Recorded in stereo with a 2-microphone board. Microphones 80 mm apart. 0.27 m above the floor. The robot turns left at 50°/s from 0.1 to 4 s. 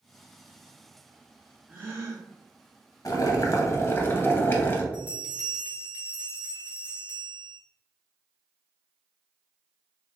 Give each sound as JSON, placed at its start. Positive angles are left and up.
{"t": 1.7, "sound": "a gasp", "side_deg": -20, "distance_m": 1.1}
{"t": 3.0, "sound": "boiling", "azimuth_deg": 90, "distance_m": 0.6}
{"t": 4.9, "sound": "a bell", "side_deg": -20, "distance_m": 1.6}